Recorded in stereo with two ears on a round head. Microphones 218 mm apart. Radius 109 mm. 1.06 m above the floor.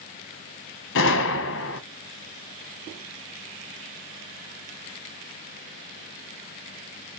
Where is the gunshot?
50° left (ahead or behind), 0.7 m.